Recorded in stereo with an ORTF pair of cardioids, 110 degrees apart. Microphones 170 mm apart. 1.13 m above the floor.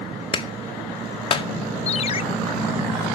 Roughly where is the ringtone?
Ahead left.